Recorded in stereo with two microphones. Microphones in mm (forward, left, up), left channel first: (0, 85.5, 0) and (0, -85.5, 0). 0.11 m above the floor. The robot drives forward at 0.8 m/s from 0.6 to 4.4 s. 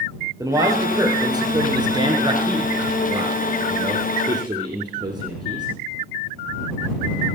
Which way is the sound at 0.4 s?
20° right (ahead or behind).